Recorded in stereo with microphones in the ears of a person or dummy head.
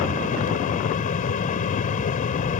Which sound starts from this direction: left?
A fan, at 0.0 s.